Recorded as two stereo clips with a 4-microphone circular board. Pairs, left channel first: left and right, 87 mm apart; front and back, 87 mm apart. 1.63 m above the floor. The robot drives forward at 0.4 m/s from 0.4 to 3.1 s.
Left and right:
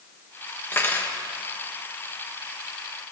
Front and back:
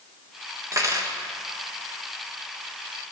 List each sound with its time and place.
0.7 s cutlery clinking: 145° left, 1.0 m; by 1.2 s 150° left, 1.1 m